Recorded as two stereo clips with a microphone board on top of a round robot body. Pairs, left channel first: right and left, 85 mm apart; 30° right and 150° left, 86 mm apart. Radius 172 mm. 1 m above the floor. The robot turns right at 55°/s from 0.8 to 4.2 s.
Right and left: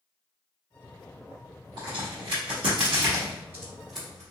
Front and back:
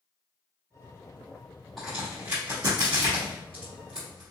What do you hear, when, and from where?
1.8 s a crack: 60° left, 1.2 m; by 4.3 s 165° right, 1.2 m